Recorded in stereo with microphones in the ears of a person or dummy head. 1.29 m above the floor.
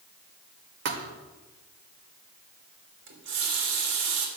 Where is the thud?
60° right (ahead or behind), 1.5 m.